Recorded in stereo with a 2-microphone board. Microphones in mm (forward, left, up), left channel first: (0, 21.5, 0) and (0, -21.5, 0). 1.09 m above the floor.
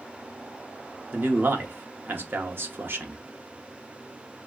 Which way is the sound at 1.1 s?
55° right (ahead or behind).